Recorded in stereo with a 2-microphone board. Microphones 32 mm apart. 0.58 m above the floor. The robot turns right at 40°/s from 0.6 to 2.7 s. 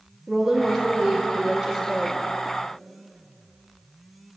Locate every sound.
0.3 s a woman speaking: 10° right (ahead or behind), 0.9 m; by 2.2 s 20° right (ahead or behind), 0.9 m